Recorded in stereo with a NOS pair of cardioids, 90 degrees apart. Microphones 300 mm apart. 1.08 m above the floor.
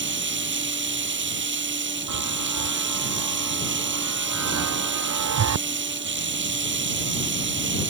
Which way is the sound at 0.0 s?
40° right.